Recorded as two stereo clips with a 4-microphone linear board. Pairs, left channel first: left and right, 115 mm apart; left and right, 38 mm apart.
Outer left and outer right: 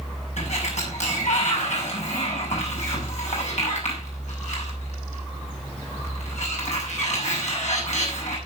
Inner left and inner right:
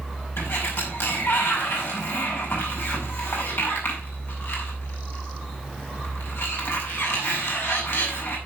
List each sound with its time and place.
0.4 s a sliding door: 75° left (ahead or behind), 6.5 m